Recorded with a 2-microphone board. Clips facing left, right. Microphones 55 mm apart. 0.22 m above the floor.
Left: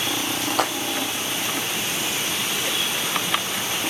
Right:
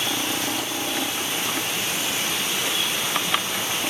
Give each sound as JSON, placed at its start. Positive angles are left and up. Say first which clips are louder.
{"t": 0.5, "sound": "a splash", "louder": "left 5 dB", "side_deg": 65}